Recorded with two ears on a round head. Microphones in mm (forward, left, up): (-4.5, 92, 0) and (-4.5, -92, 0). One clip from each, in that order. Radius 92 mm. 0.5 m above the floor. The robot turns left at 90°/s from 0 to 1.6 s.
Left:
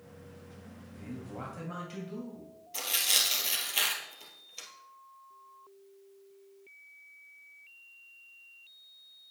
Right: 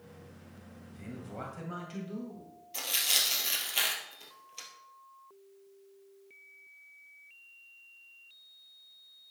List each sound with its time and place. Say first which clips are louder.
0.9 s a man speaking: even; 120° right, 2 m; by 2.5 s straight behind, 2 m
2.7 s tearing paper: left 1 dB; centre (ahead or behind), 2.0 m